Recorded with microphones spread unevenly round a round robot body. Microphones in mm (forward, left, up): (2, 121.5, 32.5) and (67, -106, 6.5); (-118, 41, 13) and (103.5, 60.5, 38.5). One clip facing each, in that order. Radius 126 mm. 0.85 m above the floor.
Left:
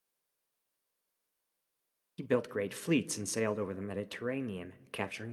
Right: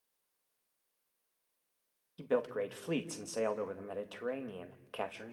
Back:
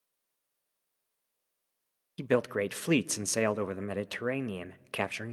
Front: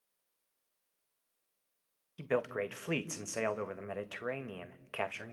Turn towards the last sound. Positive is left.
turn(degrees=165)